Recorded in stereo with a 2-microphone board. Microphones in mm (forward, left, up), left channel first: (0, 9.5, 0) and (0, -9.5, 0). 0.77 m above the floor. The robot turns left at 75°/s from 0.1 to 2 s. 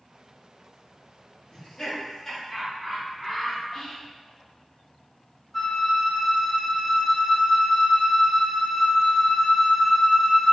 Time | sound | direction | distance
1.5 | laughter | 50° left (ahead or behind) | 1.7 m
3.7 | whispering | 25° left (ahead or behind) | 0.8 m
5.5 | a flute | 20° left (ahead or behind) | 1.7 m